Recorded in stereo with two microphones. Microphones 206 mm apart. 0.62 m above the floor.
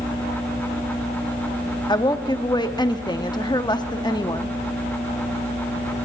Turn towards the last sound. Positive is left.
turn(degrees=20)  # may be behind; listen again after turning